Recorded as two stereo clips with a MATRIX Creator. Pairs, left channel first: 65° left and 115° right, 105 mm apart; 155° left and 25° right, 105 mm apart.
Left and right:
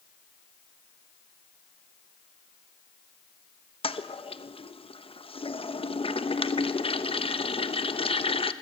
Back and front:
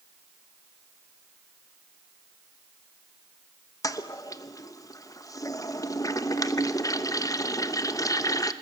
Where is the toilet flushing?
100° left, 0.9 m.